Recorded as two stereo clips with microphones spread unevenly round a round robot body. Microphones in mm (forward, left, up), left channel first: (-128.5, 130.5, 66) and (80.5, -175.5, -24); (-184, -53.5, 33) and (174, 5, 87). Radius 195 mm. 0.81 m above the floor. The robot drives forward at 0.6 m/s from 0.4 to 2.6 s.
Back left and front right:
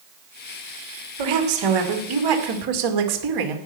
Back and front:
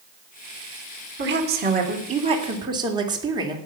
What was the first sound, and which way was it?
A woman speaking, 55° right.